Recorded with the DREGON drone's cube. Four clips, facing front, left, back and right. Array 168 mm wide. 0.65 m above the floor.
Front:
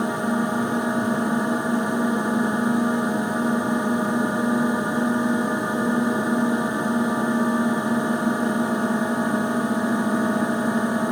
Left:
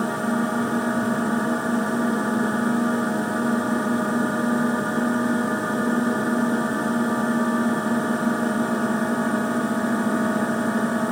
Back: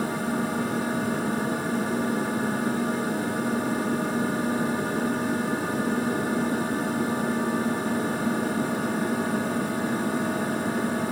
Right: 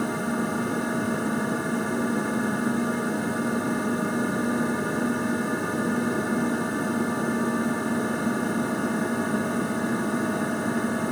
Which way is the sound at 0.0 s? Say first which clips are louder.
Left 3 dB, front 4 dB; 40° left.